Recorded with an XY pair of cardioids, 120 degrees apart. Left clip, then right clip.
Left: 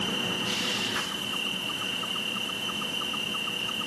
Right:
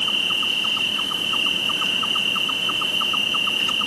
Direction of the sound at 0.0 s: 60° right.